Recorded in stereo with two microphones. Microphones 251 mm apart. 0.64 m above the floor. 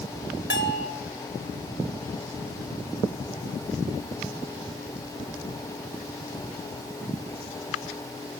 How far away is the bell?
About 3 m.